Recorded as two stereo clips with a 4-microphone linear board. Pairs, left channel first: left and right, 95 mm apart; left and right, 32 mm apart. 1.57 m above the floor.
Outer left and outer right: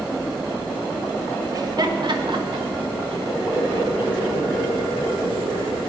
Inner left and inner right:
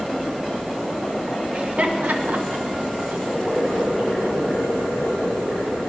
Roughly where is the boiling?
Centre.